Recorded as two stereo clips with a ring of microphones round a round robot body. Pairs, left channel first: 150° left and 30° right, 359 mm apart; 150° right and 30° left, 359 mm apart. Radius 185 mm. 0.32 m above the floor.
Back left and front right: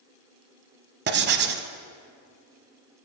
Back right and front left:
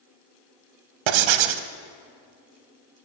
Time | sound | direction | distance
1.1 | writing | 35° left | 0.7 m